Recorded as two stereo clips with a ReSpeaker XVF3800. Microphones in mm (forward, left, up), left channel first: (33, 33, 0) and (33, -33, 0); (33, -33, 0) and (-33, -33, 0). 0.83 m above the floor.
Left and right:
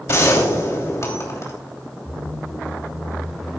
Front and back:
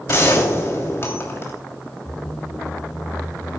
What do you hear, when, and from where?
0.1 s a gunshot: 50° left, 3 m
2.0 s a squeak: straight ahead, 5.5 m